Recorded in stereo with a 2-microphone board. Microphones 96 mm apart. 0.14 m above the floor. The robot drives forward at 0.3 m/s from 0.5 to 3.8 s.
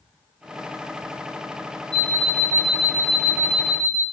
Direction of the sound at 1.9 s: 50° right (ahead or behind).